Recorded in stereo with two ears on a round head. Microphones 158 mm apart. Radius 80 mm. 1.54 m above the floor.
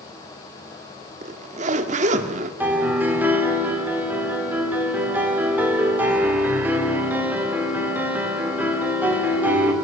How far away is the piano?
About 3.5 m.